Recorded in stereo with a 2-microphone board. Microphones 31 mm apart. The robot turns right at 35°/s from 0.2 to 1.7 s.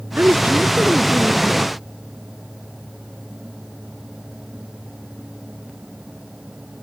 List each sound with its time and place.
0.2 s a woman speaking: 75° right; by 1.7 s 25° right